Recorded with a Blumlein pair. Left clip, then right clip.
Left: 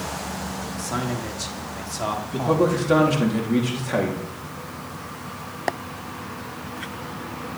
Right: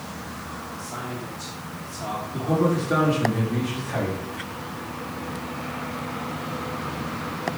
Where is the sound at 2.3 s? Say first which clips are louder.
Left 2 dB; 65° left, 4.5 m.